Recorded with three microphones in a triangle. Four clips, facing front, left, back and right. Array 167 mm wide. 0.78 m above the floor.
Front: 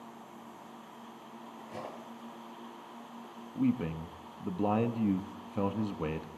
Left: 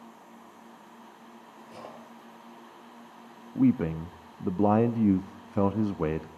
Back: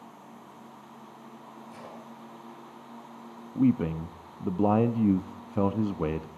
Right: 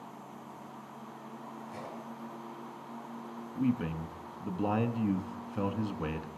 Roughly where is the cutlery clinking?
Ahead.